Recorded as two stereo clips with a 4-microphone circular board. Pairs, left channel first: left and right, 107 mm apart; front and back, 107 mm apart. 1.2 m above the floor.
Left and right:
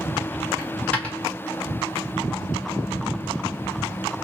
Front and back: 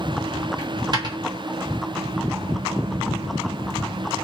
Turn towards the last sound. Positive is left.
turn(degrees=160)